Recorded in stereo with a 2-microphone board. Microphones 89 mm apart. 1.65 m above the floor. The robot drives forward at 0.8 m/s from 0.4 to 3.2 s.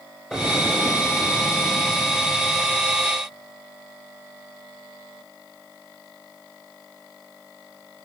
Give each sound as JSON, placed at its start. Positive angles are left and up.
{"t": 0.3, "sound": "an explosion", "side_deg": 0, "distance_m": 8.5}